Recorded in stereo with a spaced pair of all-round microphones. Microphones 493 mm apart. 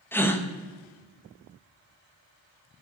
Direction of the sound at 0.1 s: 5° left (ahead or behind).